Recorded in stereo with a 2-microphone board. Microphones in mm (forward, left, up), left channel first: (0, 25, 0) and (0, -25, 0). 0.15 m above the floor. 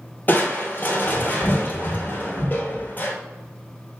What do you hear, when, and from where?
0.3 s crushing: 40° left (ahead or behind), 1.0 m